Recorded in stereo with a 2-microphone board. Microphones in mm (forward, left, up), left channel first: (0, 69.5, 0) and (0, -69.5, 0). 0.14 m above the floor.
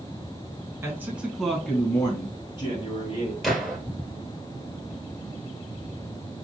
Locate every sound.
0.8 s a man speaking: 20° right (ahead or behind), 1.2 m; by 3.3 s 45° left (ahead or behind), 1.8 m
3.4 s a gunshot: centre (ahead or behind), 1.4 m